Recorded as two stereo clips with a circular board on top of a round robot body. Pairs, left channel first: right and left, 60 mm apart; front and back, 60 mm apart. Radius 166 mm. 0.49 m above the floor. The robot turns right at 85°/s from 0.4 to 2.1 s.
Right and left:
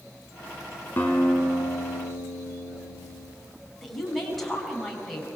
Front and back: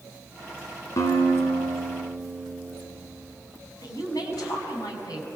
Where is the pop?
I don't hear a pop.